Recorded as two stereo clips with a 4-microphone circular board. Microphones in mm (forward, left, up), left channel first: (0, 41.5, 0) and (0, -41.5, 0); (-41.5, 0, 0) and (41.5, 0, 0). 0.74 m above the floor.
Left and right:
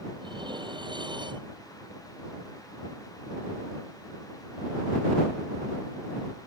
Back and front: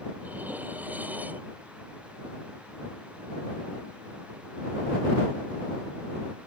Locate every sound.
0.2 s dishes clattering: 70° right